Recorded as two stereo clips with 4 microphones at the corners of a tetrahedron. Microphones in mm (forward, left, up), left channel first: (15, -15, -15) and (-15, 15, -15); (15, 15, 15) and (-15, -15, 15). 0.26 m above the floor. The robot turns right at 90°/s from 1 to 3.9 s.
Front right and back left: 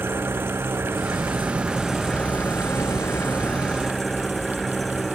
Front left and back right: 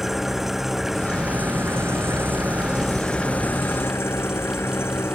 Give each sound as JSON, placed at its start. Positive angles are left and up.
{"t": 0.0, "sound": "an engine running", "azimuth_deg": 140}